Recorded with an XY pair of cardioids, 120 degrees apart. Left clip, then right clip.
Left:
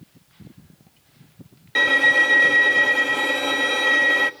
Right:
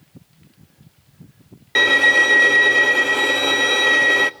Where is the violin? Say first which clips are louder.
Right 3 dB; 35° right, 0.9 m.